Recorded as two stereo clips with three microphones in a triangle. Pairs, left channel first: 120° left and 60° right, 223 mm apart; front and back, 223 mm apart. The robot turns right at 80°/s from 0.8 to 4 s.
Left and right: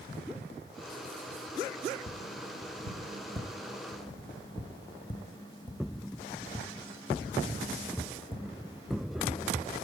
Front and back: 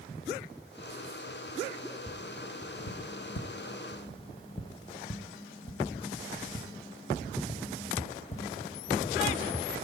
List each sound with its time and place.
2.1 s tapping: 95° right, 1.3 m; by 9.0 s 60° left, 1.3 m